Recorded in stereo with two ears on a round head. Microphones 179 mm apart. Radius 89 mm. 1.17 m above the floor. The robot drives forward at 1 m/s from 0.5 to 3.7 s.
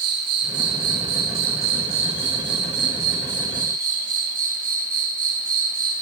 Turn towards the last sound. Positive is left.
turn(degrees=-45)  # may be behind; listen again after turning